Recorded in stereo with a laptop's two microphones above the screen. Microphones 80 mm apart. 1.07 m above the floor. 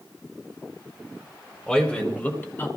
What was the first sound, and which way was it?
A man speaking, 15° left (ahead or behind).